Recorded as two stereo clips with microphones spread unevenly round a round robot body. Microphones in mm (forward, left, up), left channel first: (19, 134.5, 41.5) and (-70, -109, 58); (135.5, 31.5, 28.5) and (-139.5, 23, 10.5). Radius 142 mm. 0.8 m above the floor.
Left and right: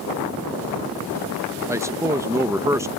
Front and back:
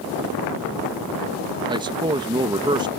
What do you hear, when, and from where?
1.7 s a man speaking: straight behind